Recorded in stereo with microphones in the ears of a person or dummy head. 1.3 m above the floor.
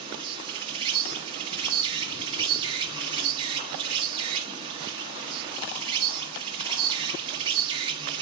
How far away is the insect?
About 0.9 m.